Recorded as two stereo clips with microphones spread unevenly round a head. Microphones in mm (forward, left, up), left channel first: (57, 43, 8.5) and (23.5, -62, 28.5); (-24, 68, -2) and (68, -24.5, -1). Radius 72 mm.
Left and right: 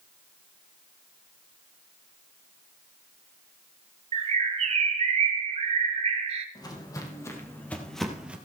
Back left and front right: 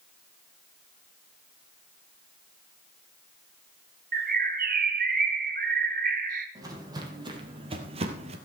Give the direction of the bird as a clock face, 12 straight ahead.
3 o'clock.